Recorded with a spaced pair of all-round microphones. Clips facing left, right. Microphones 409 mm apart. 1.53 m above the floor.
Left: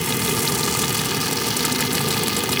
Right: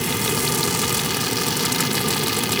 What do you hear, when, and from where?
Only background noise.